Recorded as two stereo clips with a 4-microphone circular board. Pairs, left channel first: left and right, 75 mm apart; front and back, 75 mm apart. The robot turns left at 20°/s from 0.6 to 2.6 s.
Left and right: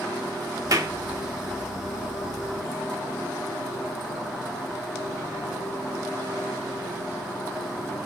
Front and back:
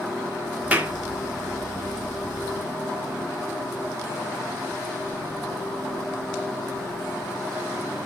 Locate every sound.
0.7 s a clap: 115° right, 1.8 m; by 0.9 s 120° right, 1.8 m